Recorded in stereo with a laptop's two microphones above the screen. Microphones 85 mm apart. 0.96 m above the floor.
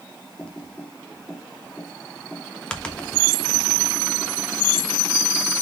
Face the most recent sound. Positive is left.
turn(degrees=10)  # may be behind; listen again after turning